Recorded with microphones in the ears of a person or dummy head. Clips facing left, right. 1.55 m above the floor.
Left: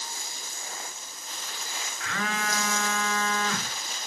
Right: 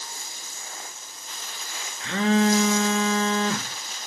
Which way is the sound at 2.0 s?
25° right (ahead or behind).